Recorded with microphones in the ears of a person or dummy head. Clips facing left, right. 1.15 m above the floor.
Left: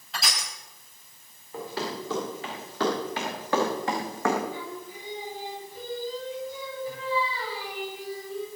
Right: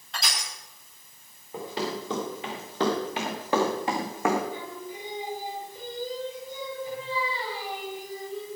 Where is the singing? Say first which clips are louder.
Even; 25° right (ahead or behind), 6.5 m.